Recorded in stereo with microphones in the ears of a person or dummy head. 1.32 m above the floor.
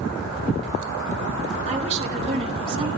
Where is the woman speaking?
40° right (ahead or behind), 3 m; by 2.9 s 30° right (ahead or behind), 2.0 m.